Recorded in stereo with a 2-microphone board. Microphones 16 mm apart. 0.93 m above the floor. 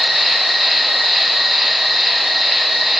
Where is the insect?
30° right (ahead or behind), 1.5 m.